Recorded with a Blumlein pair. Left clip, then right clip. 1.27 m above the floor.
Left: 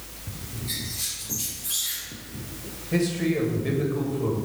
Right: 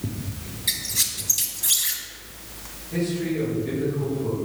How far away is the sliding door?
No sliding door in this recording.